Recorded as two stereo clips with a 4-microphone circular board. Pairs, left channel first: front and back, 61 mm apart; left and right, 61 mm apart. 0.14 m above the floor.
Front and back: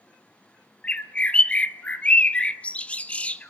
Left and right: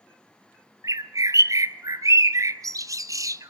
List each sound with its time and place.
0.8 s a bird: 70° right, 0.7 m